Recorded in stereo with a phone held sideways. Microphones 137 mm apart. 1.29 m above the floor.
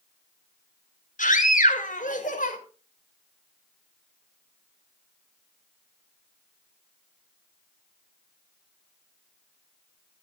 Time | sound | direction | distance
1.2 | a scream | 75° left (ahead or behind) | 5.5 m